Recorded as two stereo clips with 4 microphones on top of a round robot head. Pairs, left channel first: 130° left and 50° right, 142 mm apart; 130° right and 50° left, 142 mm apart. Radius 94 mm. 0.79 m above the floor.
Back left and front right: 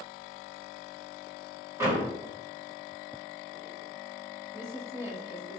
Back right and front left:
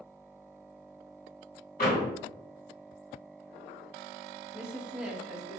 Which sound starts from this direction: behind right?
A door slam, at 1.8 s.